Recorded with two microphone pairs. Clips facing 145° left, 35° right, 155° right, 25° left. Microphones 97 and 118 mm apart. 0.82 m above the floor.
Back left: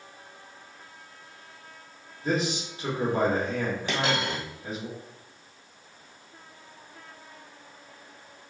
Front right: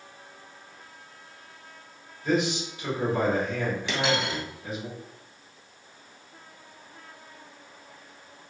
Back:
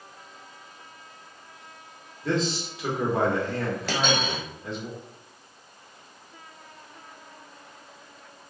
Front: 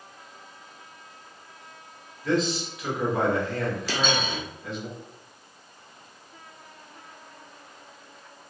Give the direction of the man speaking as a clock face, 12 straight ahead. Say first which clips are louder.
Front right 2 dB, front 2 dB; 6 o'clock.